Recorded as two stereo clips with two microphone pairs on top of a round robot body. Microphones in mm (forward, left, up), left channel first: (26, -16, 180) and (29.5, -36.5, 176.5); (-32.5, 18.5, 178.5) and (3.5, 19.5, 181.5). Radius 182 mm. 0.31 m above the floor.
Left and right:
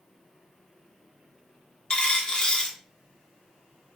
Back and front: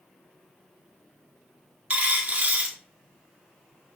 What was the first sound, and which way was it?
A dropped coin, 50° left.